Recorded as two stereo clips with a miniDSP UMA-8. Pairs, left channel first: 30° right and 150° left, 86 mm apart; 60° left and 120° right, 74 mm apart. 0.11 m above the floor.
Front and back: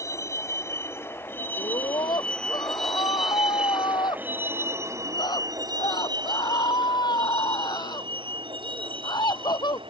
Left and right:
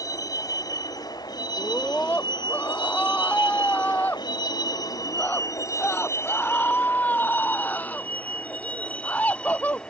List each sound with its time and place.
0.0 s a vehicle: 25° left; by 9.9 s 140° left
1.6 s a scream: 5° right